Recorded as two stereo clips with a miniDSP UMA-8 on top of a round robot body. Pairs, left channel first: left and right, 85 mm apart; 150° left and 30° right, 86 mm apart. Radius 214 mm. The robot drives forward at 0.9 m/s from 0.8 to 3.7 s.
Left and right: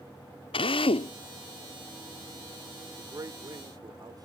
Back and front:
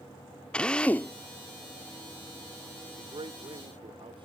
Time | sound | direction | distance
0.5 | a drill | 70° left | ?
3.0 | a man speaking | 40° right | ?